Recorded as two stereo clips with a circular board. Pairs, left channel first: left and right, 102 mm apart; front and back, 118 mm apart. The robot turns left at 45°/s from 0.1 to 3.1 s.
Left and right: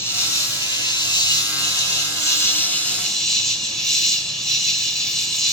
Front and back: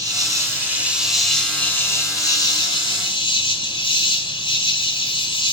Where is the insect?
140° left, 1.4 m; by 5.5 s 5° left, 1.4 m.